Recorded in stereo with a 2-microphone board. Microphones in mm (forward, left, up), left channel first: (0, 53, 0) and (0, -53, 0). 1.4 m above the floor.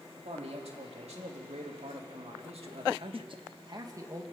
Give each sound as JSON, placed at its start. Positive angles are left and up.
{"t": 0.2, "sound": "a man speaking", "side_deg": -80, "distance_m": 3.5}